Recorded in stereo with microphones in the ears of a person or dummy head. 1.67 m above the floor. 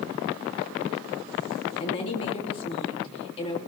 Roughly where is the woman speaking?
Left.